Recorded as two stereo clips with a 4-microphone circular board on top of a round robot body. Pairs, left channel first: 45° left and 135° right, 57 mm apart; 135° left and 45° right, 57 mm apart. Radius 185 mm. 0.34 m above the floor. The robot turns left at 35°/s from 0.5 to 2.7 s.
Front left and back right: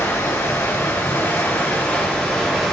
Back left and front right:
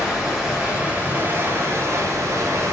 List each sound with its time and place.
0.0 s running water: 35° left, 2.5 m; by 2.7 s 40° right, 2.5 m